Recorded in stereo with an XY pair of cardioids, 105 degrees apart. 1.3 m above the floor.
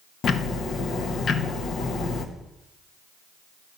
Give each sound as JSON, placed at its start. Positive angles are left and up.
{"t": 0.2, "sound": "ticking", "azimuth_deg": 55, "distance_m": 1.0}